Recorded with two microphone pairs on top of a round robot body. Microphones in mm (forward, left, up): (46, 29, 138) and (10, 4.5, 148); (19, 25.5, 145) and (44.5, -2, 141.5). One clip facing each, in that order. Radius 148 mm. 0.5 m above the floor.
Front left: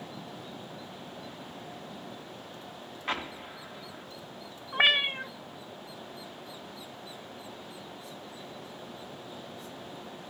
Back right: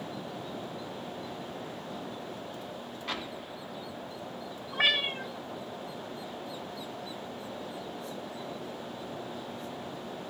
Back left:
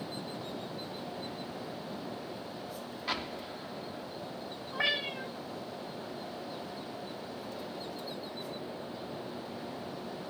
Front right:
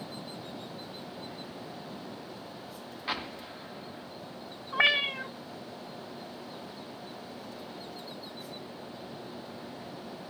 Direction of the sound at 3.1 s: 20° left.